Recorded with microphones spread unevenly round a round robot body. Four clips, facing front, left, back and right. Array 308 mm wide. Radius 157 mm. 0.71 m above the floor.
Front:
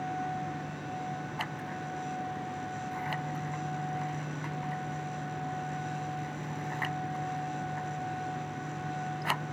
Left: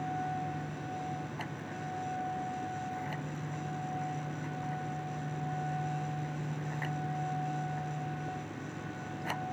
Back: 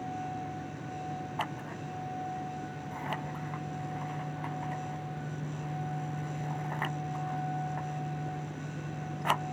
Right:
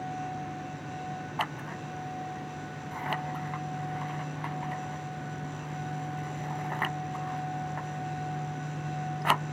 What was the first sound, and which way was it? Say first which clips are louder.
Scissors: right 5 dB, even; 85° right.